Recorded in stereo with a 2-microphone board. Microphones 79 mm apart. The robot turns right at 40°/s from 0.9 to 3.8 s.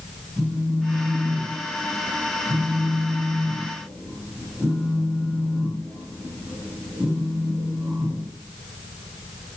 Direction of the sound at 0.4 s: 140° right.